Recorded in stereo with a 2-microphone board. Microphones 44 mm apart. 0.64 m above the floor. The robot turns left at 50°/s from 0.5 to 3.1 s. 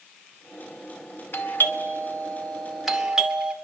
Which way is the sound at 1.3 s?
55° left (ahead or behind).